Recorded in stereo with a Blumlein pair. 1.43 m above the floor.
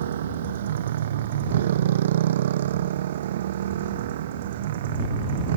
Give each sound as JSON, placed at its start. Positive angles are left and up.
{"t": 0.0, "sound": "a motorcycle", "azimuth_deg": -60}